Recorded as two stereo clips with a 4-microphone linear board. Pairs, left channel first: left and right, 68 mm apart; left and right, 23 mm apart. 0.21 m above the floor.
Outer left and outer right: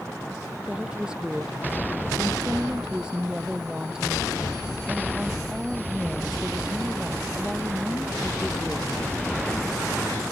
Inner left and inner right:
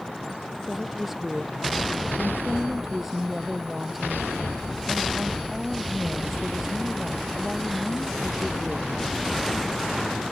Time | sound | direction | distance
0.7 | a woman speaking | 10° right (ahead or behind) | ?